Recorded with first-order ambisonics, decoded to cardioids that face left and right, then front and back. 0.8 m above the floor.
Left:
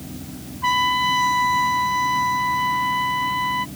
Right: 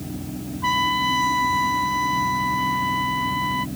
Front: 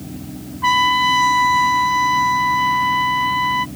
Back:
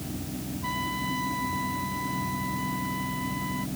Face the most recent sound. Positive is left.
turn(degrees=5)